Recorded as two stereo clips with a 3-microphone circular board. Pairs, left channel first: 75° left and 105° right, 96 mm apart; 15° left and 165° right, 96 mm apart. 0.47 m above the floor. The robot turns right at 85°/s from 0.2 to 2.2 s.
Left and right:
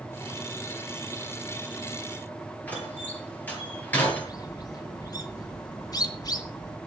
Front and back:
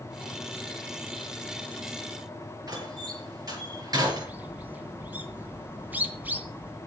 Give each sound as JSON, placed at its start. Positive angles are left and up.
{"t": 2.7, "sound": "a door slam", "azimuth_deg": 145, "distance_m": 7.0}
{"t": 4.2, "sound": "a bird", "azimuth_deg": 125, "distance_m": 2.5}